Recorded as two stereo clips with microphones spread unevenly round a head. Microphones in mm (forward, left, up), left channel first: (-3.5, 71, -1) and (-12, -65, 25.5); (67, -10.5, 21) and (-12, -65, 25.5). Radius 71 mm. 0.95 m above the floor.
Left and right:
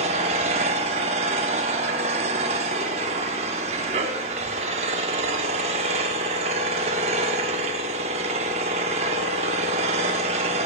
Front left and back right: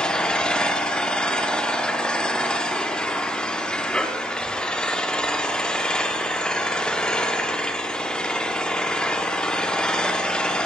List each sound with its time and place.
0.0 s an engine running: 45° right, 1.4 m